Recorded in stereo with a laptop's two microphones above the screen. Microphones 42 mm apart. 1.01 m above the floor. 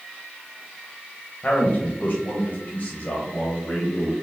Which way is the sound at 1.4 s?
40° left (ahead or behind).